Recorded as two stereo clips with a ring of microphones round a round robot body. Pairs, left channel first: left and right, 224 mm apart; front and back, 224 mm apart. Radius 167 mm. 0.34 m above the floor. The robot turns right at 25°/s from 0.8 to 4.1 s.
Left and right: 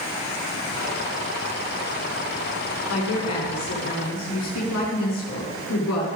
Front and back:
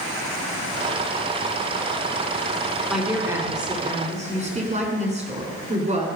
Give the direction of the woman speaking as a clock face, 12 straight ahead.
9 o'clock.